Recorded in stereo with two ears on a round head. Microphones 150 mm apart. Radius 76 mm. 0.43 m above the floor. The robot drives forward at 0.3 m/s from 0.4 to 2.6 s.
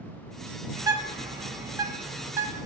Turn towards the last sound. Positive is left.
turn(degrees=-15)  # may be behind; listen again after turning